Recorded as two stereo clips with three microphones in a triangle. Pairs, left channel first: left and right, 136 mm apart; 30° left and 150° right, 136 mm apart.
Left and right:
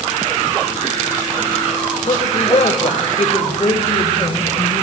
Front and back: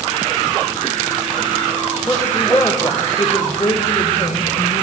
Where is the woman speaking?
105° left, 2 m; by 4.8 s 35° left, 2.5 m.